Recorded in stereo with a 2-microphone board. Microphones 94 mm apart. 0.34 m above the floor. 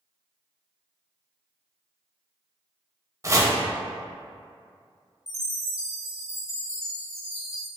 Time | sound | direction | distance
3.2 | chopping | 30° right (ahead or behind) | 0.6 m
5.3 | a chime | 30° left (ahead or behind) | 0.7 m